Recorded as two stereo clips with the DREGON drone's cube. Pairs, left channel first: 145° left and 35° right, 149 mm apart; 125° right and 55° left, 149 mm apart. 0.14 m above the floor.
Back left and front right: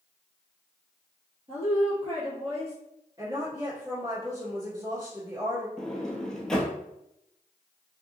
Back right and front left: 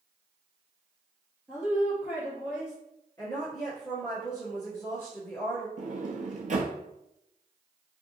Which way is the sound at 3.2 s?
70° right.